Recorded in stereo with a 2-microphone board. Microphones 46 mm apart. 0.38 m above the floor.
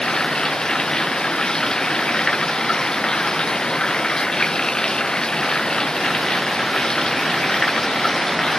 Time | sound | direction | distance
0.0 | running water | 15° left (ahead or behind) | ?